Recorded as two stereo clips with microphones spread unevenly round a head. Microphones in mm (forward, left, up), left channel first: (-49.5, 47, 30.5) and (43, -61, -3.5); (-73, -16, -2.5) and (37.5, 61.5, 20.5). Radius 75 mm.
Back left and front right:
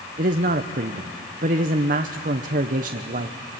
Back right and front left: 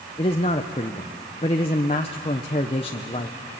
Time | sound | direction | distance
0.2 | a man speaking | 85° right | 0.8 m